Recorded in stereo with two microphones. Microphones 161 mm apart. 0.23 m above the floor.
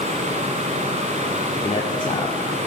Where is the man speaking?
40° left (ahead or behind), 2.0 m; by 2.7 s 10° left (ahead or behind), 1.3 m.